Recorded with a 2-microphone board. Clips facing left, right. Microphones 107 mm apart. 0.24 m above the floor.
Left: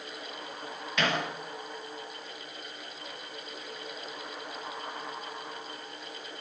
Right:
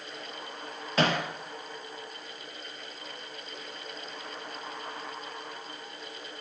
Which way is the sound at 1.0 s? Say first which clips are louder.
Right 3 dB; 35° right (ahead or behind).